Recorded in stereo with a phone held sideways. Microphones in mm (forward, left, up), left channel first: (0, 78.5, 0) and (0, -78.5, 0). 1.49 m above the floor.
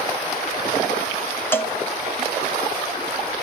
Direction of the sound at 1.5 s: 15° left (ahead or behind).